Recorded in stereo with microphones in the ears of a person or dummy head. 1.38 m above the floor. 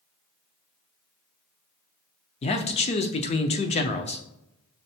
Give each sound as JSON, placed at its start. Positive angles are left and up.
{"t": 2.4, "sound": "a man speaking", "side_deg": 35, "distance_m": 0.7}